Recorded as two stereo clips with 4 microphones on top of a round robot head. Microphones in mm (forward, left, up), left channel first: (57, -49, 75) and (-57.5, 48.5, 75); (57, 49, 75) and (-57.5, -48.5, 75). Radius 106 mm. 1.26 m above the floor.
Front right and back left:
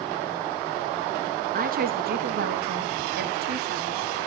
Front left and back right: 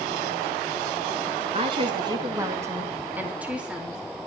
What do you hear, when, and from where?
1.5 s a woman speaking: 170° left, 2 m; by 4.0 s 135° left, 4 m